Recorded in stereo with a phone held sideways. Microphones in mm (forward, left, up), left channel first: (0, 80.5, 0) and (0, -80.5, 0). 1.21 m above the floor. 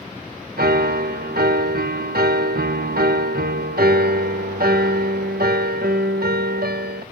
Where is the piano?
80° right, 0.8 m.